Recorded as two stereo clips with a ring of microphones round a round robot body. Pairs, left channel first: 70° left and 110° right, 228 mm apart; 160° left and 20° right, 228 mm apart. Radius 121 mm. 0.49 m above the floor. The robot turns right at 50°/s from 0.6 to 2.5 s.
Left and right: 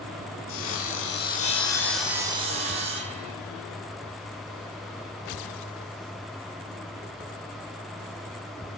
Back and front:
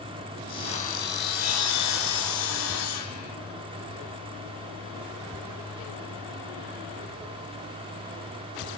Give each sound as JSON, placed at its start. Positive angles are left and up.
{"t": 0.5, "sound": "sawing", "azimuth_deg": 90, "distance_m": 4.5}